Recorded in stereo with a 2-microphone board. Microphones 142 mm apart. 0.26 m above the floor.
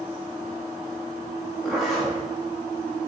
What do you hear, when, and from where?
1.6 s a zipper: centre (ahead or behind), 1.4 m